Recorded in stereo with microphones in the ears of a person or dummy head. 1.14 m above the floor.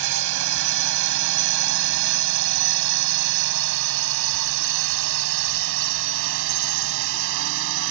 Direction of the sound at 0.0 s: 60° right (ahead or behind).